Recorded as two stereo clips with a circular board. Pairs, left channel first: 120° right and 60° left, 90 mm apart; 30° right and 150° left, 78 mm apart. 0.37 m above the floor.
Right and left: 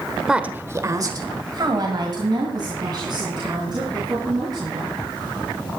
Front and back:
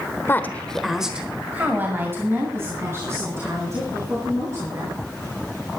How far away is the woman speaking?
About 1.1 m.